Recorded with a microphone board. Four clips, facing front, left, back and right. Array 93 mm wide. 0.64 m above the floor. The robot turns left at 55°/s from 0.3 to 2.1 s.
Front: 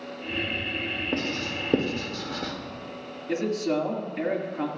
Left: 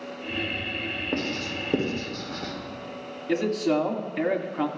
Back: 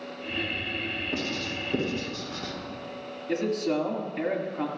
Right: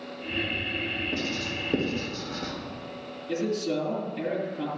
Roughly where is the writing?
Ahead left.